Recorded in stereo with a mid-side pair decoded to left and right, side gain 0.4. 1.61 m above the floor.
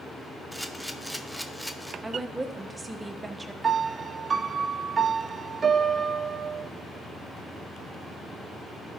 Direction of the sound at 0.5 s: Straight ahead.